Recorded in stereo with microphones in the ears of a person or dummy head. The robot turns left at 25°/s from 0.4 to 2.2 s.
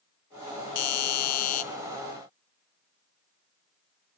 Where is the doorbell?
65° left (ahead or behind), 0.7 m; by 1.6 s 45° left (ahead or behind), 0.7 m.